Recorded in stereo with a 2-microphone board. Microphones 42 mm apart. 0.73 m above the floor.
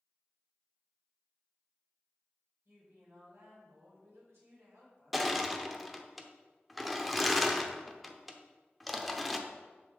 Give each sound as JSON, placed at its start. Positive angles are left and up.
{"t": 2.6, "sound": "a woman speaking", "side_deg": -70, "distance_m": 3.0}
{"t": 5.1, "sound": "crushing", "side_deg": 0, "distance_m": 0.5}